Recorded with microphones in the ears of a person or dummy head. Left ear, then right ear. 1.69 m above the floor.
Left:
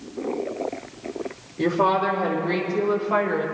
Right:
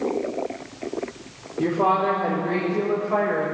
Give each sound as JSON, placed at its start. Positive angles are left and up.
{"t": 1.6, "sound": "a woman speaking", "side_deg": 75, "distance_m": 2.5}